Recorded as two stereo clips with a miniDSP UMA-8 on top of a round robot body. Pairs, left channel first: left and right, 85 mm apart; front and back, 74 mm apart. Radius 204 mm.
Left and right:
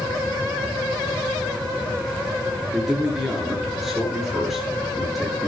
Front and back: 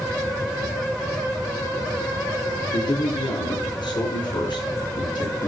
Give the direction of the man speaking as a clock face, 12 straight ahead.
12 o'clock.